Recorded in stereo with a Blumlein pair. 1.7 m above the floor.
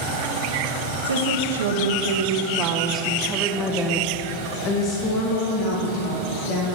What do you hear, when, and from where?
1.0 s a woman speaking: 70° right, 1.4 m; by 6.7 s 50° left, 2 m